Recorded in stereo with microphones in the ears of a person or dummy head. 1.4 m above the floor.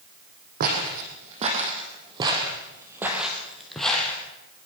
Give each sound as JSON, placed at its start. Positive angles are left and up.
{"t": 0.6, "sound": "footsteps", "side_deg": -45, "distance_m": 4.0}